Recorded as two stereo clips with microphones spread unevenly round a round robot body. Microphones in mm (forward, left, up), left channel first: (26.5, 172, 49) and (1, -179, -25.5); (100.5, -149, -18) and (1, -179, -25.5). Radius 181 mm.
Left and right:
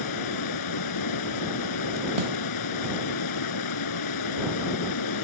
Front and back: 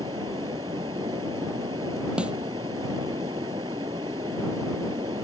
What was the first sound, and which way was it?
Running water, 125° left.